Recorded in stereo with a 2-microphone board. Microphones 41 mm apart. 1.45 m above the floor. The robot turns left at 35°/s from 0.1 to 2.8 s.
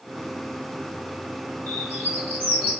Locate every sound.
1.7 s a bird: 65° left, 4 m; by 2.7 s 25° left, 4 m